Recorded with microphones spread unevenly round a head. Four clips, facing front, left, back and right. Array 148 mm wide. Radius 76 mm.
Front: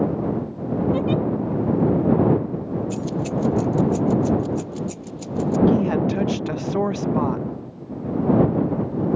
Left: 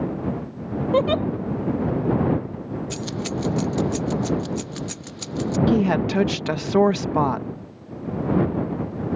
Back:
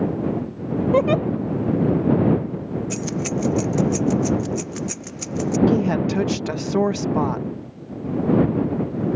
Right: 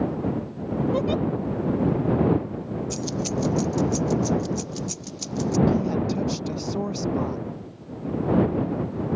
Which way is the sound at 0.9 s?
150° left.